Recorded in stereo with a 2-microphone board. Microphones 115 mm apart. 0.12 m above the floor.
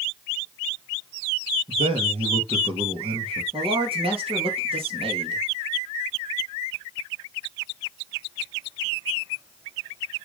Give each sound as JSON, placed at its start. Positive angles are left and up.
{"t": 1.7, "sound": "a man speaking", "side_deg": -60, "distance_m": 2.5}
{"t": 3.5, "sound": "a man speaking", "side_deg": -55, "distance_m": 3.5}